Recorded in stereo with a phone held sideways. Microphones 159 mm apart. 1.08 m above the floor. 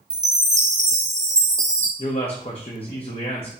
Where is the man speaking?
40° left (ahead or behind), 0.5 m.